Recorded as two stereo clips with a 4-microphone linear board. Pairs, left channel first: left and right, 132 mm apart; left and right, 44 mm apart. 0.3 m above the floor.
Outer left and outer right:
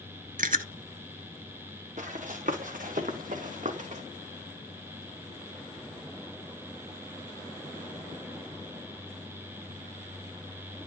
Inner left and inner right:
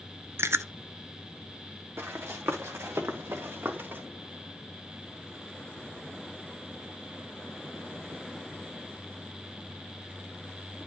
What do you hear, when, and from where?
0.4 s chewing: 80° right, 0.7 m
2.0 s running footsteps: 65° right (ahead or behind), 3.5 m; by 4.0 s 55° right (ahead or behind), 3 m